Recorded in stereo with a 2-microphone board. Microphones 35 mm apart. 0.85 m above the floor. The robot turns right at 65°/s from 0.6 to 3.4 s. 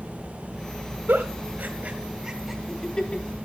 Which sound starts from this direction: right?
A giggle, at 1.1 s.